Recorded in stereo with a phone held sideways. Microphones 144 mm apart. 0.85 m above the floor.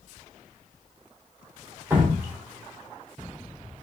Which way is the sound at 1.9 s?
15° right (ahead or behind).